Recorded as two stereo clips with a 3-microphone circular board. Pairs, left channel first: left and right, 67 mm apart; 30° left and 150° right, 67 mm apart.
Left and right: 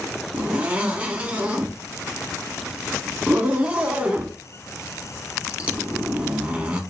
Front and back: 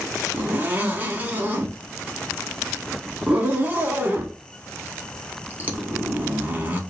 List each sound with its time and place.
0.3 s a zipper: 135° right, 0.7 m